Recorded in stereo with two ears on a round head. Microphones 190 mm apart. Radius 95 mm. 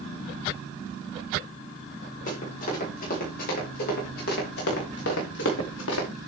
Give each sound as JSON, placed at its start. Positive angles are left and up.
{"t": 2.3, "sound": "running footsteps", "side_deg": 35, "distance_m": 5.0}